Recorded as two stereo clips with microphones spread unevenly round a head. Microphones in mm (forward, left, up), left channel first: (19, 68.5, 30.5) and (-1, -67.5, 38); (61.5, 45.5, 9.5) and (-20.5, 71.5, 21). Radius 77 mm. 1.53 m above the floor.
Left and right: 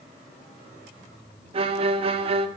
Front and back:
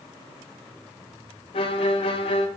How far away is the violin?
About 0.6 m.